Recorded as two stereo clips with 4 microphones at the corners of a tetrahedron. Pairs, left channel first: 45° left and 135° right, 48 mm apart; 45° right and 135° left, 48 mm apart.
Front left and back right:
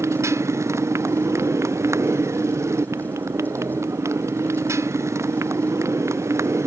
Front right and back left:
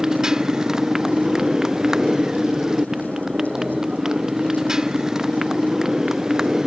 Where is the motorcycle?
145° right.